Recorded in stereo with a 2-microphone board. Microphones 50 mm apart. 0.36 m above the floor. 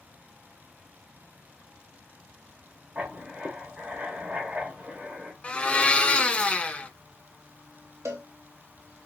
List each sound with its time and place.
3.0 s writing: 25° right (ahead or behind), 1.4 m
5.4 s a blender: 25° left (ahead or behind), 0.7 m
8.1 s a cowbell: 85° right, 1.9 m